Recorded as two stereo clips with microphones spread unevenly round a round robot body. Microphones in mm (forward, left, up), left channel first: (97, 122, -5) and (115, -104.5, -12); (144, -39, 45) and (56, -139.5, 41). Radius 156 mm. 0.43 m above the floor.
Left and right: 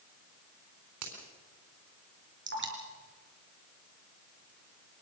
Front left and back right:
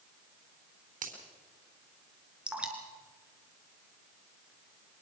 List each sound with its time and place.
1.0 s a finger snap: 120° right, 4 m
2.5 s dripping: 50° right, 4.5 m